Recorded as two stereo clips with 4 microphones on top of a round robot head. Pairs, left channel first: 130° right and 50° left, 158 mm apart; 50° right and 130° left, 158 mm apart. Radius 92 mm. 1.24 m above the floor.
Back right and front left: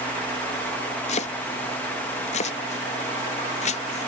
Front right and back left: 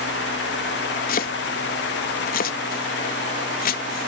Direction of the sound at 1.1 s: 80° right.